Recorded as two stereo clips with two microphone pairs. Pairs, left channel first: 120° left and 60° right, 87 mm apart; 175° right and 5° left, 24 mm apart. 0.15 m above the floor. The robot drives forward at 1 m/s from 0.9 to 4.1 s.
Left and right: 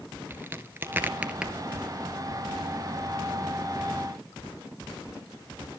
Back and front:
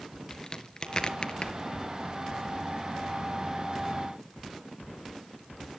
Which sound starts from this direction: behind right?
A crack, at 0.3 s.